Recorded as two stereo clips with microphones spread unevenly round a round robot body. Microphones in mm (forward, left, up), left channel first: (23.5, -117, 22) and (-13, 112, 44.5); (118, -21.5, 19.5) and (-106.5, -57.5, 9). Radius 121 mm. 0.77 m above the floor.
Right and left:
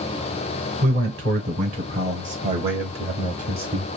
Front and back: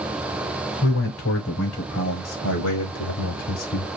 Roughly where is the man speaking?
Ahead left.